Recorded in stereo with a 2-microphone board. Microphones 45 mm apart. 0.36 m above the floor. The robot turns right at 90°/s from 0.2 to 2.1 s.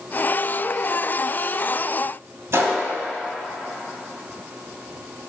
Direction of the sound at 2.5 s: 65° right (ahead or behind).